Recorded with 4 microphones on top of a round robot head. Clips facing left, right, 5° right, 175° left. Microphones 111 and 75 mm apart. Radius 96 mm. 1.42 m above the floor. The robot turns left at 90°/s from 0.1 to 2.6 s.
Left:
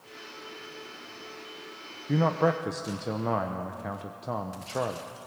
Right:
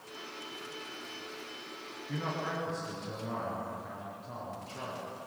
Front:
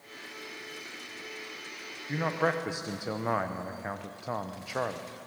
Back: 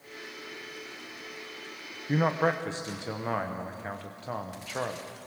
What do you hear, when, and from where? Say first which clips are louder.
2.1 s a man speaking: left 12 dB, back 3 dB; 120° left, 1.2 m; by 5.1 s 75° left, 1.2 m